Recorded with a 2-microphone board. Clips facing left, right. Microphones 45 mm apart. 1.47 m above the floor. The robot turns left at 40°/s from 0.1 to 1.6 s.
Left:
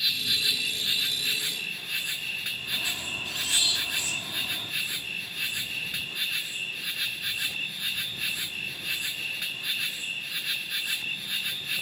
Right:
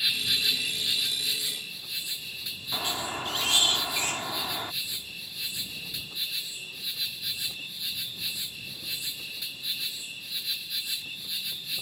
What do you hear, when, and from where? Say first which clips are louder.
0.0 s an insect: even; 175° right; by 11.8 s 125° left
2.7 s a squeak: right 3 dB; 50° right (ahead or behind)